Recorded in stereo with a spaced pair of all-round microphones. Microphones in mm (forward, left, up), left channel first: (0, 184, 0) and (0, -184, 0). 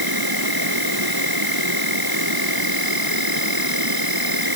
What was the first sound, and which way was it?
An insect, 75° right (ahead or behind).